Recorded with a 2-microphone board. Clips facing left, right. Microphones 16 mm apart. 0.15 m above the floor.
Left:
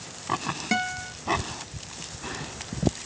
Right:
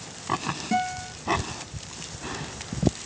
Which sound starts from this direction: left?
A guitar, at 0.7 s.